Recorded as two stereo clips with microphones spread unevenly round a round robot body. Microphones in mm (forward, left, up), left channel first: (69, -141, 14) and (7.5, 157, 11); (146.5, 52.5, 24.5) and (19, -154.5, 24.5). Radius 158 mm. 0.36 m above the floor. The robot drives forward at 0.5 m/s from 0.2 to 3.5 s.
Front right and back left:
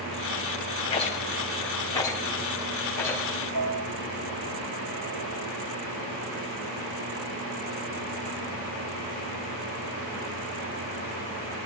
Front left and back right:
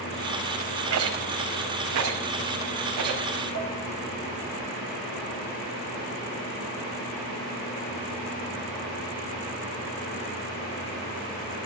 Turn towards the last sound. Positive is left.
turn(degrees=85)